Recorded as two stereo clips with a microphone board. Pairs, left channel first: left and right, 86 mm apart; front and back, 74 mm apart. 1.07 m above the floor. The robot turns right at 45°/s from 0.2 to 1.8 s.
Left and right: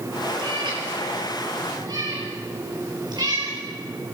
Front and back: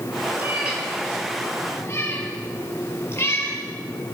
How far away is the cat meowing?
About 6.5 m.